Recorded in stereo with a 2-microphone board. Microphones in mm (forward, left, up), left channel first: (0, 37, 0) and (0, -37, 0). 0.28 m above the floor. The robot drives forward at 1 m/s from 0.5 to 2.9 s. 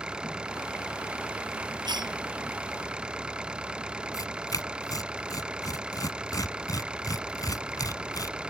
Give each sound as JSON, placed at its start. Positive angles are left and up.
{"t": 0.0, "sound": "an engine running", "side_deg": -10}
{"t": 1.9, "sound": "a cough", "side_deg": -75}
{"t": 4.1, "sound": "tearing paper", "side_deg": 55}